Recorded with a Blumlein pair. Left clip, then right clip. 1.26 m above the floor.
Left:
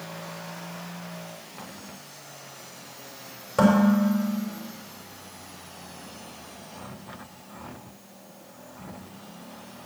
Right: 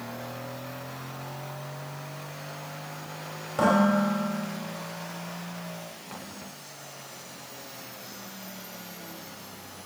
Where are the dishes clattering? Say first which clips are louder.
Left 1 dB; 50° left, 4 m.